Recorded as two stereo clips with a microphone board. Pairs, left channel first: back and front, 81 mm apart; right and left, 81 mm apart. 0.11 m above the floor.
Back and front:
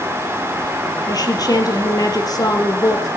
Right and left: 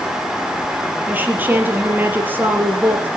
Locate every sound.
1.1 s a woman speaking: 155° left, 3 m